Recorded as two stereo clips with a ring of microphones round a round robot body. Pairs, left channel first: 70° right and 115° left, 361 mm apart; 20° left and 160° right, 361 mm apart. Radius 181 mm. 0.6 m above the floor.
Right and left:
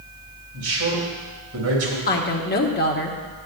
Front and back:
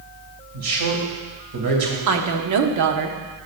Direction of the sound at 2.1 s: 125° right.